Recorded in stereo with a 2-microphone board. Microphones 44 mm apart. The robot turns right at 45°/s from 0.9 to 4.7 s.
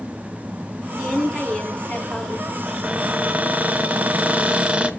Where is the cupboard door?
145° right, 1.4 m; by 4.9 s 50° right, 1.4 m.